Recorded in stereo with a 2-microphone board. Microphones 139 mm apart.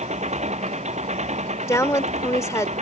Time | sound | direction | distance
0.0 | an engine running | 55° right (ahead or behind) | ?
1.7 | a woman speaking | 20° left (ahead or behind) | ?